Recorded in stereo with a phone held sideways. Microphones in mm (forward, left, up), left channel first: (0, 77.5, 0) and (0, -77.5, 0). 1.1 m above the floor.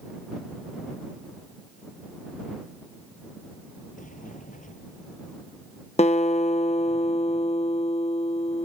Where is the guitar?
45° left (ahead or behind).